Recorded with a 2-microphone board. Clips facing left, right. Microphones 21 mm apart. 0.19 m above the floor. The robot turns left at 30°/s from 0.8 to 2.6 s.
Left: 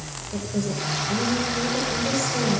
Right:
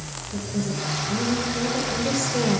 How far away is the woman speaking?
About 4 m.